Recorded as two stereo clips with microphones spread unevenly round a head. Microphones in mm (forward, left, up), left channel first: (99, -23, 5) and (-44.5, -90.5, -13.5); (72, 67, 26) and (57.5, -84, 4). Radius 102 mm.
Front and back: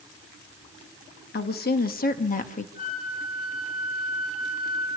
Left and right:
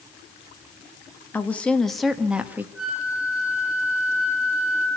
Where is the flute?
10° right, 9 m.